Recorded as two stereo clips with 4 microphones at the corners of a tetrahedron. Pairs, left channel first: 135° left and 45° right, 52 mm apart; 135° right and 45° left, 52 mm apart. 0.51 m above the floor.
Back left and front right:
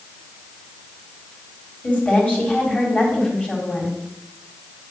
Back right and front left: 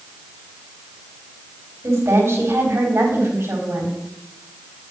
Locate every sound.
1.8 s a woman speaking: 75° left, 4 m